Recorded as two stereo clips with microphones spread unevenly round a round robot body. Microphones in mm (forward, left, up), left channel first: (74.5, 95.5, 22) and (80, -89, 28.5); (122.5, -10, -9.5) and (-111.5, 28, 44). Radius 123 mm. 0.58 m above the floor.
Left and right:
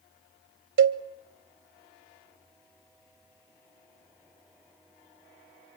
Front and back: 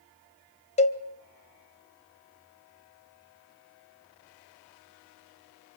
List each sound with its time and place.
0.8 s a cowbell: 75° right, 1.1 m